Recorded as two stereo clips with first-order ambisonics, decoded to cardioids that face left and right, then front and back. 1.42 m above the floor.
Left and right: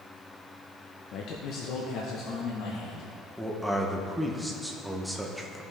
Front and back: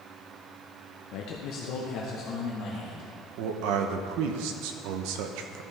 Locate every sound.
1.1 s a man speaking: 40° left, 0.6 m; by 3.1 s 50° left, 1.7 m
3.4 s a man speaking: straight behind, 0.8 m